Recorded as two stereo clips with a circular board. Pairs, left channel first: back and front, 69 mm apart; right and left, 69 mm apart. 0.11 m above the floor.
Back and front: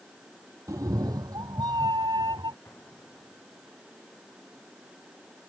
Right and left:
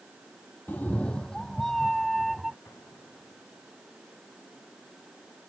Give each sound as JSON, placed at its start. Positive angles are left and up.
{"t": 0.7, "sound": "a cat meowing", "azimuth_deg": -30}
{"t": 2.6, "sound": "an explosion", "azimuth_deg": -130}